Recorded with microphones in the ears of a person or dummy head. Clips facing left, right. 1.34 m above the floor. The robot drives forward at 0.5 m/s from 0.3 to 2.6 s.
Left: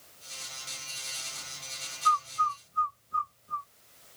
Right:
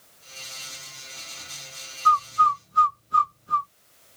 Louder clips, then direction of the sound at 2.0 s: Right 7 dB; 50° right (ahead or behind).